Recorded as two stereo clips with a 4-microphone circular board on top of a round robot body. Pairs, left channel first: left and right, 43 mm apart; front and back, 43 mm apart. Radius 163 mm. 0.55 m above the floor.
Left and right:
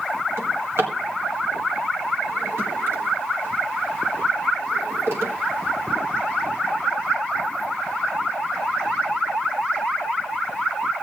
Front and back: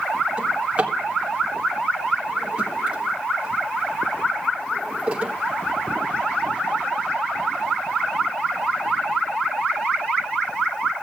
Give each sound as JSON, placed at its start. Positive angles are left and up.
{"t": 0.4, "sound": "a drawer", "azimuth_deg": -115, "distance_m": 1.7}